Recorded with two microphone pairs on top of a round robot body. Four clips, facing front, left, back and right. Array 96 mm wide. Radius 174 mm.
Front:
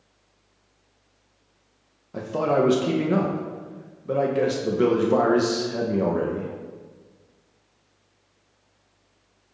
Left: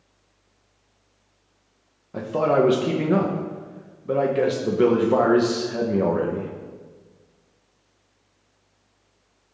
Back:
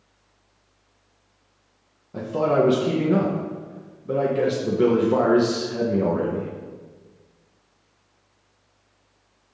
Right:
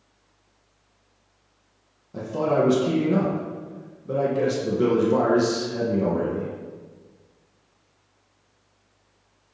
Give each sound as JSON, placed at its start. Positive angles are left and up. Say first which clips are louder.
{"t": 2.1, "sound": "a man speaking", "louder": "left 2 dB, back 2 dB", "azimuth_deg": 65, "distance_m": 0.8}